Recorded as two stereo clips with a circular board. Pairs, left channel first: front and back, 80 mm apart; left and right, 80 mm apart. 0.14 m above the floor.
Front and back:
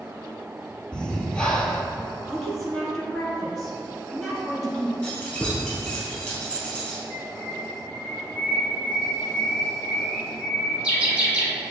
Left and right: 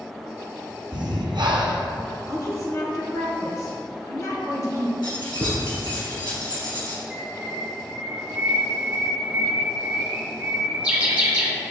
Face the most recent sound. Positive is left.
turn(degrees=-135)